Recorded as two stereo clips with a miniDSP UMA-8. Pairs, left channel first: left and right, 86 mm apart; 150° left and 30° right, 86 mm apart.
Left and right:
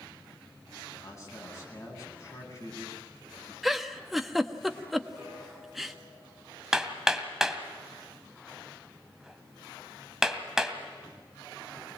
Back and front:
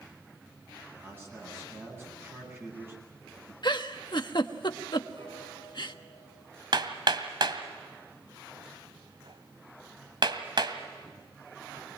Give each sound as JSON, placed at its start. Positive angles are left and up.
{"t": 0.9, "sound": "a man speaking", "azimuth_deg": 35, "distance_m": 9.5}
{"t": 3.6, "sound": "a giggle", "azimuth_deg": 180, "distance_m": 1.1}
{"t": 5.2, "sound": "a piano", "azimuth_deg": -20, "distance_m": 8.0}
{"t": 6.7, "sound": "hammering", "azimuth_deg": -5, "distance_m": 1.9}